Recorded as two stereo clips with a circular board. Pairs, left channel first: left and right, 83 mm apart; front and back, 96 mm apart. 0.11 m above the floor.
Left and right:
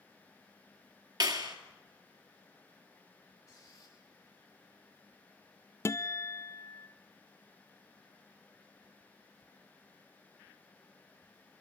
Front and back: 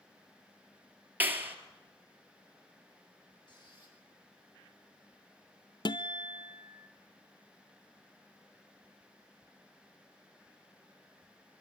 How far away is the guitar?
About 0.6 m.